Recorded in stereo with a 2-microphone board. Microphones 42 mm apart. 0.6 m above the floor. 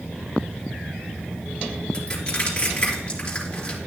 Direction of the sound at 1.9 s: 20° left (ahead or behind).